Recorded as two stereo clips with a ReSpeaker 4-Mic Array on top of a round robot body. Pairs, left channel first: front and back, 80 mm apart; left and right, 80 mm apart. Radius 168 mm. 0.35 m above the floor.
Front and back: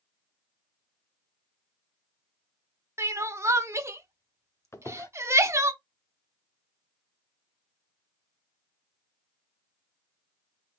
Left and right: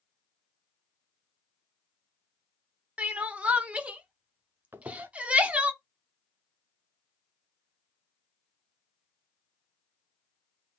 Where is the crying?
155° right, 1.1 m.